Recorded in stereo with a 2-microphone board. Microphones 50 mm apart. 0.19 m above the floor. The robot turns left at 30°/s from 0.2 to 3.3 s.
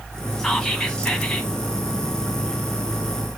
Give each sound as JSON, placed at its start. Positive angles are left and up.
{"t": 0.4, "sound": "whispering", "side_deg": 10, "distance_m": 1.0}